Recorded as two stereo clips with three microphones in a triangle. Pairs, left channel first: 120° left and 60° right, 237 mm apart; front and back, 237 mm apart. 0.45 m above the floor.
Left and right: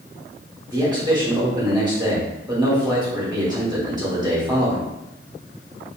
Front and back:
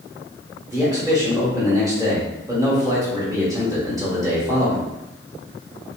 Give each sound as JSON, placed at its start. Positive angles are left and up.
{"t": 0.7, "sound": "a man speaking", "azimuth_deg": -120, "distance_m": 1.5}